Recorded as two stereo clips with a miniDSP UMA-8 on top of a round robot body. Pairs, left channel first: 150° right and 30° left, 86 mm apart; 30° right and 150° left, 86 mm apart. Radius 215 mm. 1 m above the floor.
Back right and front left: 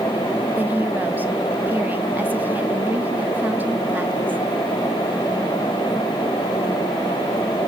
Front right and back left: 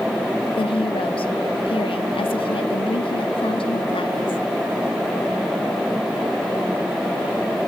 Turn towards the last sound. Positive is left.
turn(degrees=-40)